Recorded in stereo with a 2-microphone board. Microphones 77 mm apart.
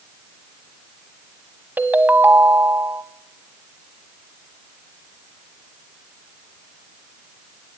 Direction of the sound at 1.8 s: 25° right (ahead or behind).